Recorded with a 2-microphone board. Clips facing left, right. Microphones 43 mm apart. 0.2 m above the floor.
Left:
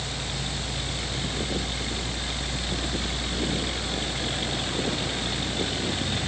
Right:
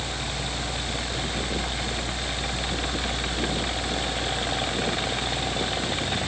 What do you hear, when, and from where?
Only background noise.